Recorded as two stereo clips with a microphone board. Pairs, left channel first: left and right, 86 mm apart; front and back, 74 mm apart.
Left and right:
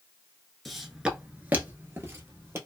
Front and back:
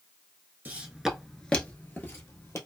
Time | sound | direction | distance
0.7 | footsteps | straight behind | 0.7 m